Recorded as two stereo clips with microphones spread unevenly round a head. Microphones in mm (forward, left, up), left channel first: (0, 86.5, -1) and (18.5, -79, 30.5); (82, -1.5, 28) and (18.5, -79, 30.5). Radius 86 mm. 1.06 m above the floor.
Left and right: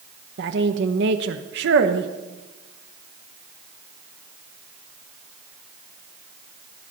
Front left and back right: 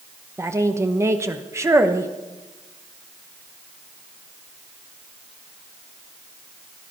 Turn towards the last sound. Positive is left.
turn(degrees=-70)